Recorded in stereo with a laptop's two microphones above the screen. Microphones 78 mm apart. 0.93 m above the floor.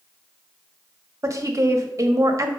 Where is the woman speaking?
40° right (ahead or behind), 1.3 m.